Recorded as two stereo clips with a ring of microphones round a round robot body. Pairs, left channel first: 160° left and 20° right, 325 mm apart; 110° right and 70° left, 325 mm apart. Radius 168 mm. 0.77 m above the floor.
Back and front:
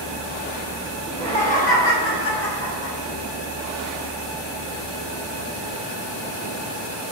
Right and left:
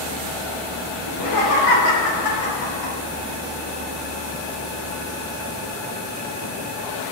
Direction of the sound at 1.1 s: 125° right.